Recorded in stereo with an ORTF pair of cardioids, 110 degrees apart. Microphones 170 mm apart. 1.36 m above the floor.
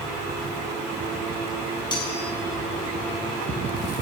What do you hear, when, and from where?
1.9 s cutlery clinking: 25° left, 6.5 m